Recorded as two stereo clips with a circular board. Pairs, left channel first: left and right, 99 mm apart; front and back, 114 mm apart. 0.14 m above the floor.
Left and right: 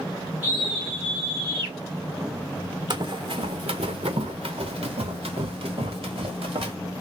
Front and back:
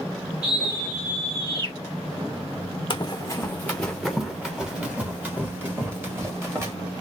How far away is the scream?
About 1.7 m.